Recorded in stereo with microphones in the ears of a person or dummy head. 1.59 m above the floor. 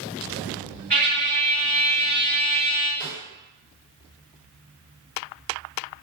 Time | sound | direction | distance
0.9 | a trumpet | 10° left (ahead or behind) | 1.9 m
3.0 | a snare drum | 20° left (ahead or behind) | 1.7 m